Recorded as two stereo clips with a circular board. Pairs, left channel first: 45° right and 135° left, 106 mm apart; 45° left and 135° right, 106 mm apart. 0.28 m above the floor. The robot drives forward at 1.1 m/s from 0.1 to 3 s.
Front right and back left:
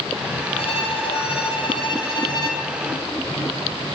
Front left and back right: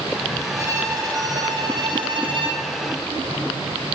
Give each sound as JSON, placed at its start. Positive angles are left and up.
{"t": 0.6, "sound": "a violin", "azimuth_deg": -75, "distance_m": 5.5}